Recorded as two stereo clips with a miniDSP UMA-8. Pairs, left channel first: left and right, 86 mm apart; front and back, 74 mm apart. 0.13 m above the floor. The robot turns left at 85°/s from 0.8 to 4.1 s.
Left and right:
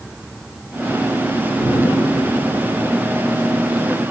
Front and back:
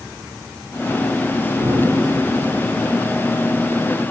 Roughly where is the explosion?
Behind.